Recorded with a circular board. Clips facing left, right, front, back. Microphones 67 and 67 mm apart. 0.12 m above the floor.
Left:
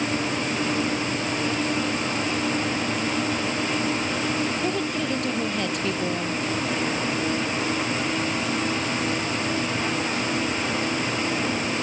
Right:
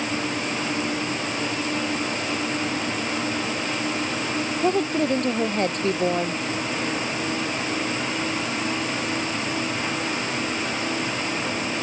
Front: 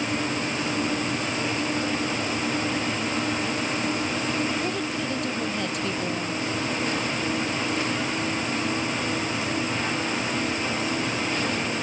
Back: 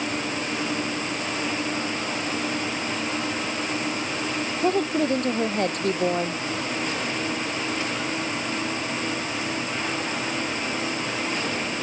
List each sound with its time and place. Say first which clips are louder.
4.6 s a woman speaking: right 4 dB, back 6 dB; 140° right